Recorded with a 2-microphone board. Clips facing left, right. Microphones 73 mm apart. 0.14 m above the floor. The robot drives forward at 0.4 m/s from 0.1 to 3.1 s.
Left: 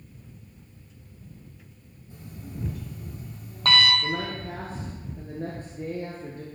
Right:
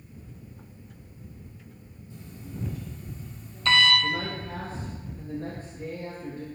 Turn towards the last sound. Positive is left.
turn(degrees=55)  # may be behind; listen again after turning